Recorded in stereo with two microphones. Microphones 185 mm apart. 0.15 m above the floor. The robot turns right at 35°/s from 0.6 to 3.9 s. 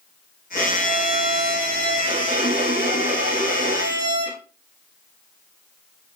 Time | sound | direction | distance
0.6 | a violin | 165° left | 4.5 m